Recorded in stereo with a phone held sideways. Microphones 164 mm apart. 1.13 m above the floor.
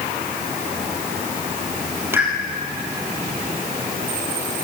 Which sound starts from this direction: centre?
A pop, at 2.1 s.